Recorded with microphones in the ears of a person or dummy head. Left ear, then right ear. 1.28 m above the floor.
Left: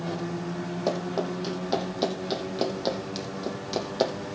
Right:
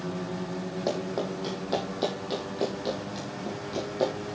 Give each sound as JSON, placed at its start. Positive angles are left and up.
{"t": 0.9, "sound": "running footsteps", "side_deg": 10, "distance_m": 2.5}